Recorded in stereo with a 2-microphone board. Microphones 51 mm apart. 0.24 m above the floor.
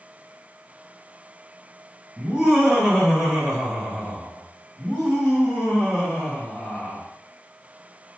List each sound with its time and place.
2.2 s laughter: 10° right (ahead or behind), 2.0 m; by 7.0 s 20° left (ahead or behind), 1.8 m